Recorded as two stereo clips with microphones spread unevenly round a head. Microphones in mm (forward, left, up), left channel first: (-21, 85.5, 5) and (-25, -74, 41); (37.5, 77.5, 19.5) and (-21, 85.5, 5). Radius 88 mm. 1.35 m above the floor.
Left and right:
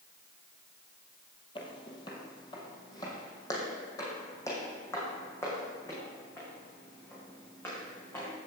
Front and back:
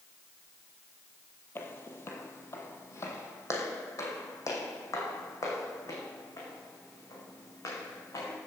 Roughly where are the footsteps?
Ahead.